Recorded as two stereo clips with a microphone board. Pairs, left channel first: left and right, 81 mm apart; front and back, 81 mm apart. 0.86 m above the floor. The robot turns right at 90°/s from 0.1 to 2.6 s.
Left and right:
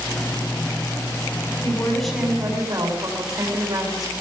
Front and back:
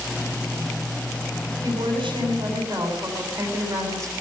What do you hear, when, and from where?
1.6 s a woman speaking: 140° left, 8 m; by 4.1 s 130° right, 8 m